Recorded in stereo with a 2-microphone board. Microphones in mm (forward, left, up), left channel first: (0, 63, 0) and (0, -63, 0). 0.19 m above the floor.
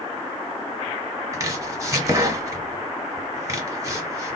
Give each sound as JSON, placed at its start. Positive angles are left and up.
{"t": 1.3, "sound": "chopping", "side_deg": -25, "distance_m": 1.1}